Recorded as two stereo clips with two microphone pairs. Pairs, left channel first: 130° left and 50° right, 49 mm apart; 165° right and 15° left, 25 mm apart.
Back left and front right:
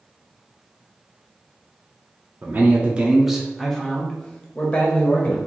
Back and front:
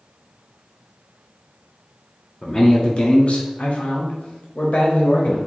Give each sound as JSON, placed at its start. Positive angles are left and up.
{"t": 2.4, "sound": "a man speaking", "azimuth_deg": -95, "distance_m": 0.7}